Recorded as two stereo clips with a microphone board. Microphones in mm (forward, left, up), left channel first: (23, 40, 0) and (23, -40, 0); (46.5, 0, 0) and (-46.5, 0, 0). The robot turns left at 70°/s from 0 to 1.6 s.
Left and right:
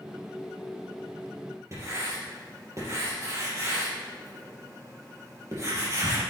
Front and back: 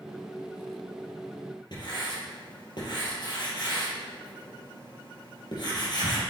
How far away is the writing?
About 4 m.